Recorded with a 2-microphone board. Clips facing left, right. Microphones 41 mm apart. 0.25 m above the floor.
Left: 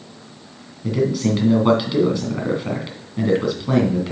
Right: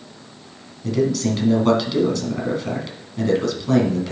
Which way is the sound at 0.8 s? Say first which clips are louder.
Even; 15° left (ahead or behind).